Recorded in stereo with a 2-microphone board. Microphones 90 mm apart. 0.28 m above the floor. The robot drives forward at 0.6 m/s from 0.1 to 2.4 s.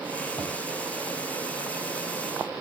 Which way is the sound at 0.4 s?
45° left (ahead or behind).